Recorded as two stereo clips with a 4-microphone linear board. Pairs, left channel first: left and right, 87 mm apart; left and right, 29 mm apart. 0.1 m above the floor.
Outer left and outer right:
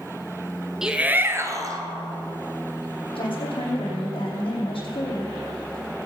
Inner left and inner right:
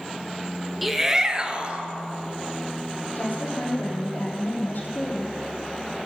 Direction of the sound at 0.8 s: 5° right (ahead or behind).